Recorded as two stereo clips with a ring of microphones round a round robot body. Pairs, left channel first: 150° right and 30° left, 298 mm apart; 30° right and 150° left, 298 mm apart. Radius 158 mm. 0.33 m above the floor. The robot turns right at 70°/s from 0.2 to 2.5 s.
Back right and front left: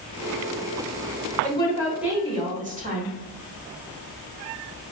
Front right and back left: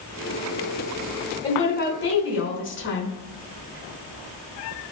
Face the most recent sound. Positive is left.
turn(degrees=-20)